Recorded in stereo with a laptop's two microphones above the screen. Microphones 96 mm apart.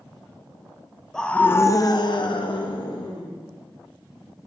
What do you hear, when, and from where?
1.1 s a scream: 5° left (ahead or behind), 1.0 m; by 3.3 s 55° left (ahead or behind), 1.8 m